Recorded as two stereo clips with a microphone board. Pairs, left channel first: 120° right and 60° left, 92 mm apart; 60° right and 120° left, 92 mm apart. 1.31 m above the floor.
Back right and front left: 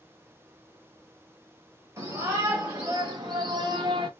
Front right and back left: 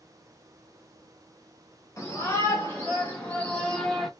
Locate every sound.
2.0 s a shout: 5° left, 3 m; by 4.1 s 30° left, 1.1 m